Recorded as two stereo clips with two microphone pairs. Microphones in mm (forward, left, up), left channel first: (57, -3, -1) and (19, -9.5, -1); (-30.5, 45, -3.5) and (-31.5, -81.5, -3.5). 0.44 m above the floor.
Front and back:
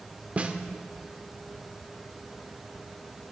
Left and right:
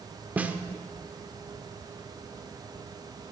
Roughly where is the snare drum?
Behind right.